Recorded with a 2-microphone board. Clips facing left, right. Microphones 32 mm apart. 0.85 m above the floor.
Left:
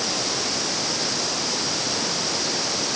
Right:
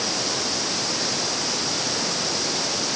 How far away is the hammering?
No hammering in this recording.